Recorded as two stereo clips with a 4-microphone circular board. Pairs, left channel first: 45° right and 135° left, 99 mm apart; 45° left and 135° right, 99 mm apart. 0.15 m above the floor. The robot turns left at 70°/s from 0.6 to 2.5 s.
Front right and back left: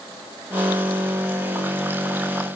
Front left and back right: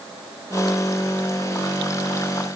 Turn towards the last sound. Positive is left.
No sound to turn to.